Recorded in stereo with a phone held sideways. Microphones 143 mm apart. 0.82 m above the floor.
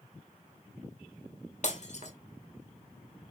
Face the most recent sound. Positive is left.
turn(degrees=55)  # may be behind; listen again after turning